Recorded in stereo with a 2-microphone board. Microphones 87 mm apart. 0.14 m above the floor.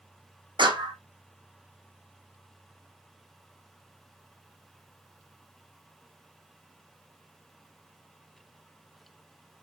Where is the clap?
65° right (ahead or behind), 4.5 m.